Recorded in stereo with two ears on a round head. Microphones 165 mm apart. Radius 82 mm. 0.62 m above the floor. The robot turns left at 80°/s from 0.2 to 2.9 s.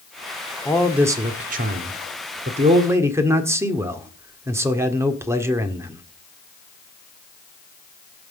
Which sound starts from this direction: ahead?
A man speaking, at 0.7 s.